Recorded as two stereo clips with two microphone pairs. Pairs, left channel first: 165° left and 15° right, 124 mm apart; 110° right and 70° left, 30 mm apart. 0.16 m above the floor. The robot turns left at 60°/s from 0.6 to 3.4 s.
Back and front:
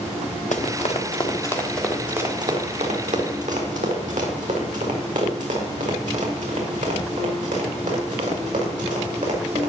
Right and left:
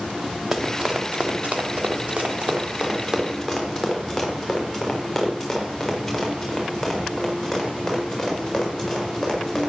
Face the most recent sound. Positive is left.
turn(degrees=-20)